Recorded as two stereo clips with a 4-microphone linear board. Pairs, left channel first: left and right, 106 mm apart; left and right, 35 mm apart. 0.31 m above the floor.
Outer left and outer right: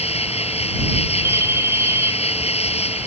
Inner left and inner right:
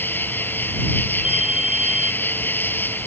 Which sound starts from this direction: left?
An insect, at 0.0 s.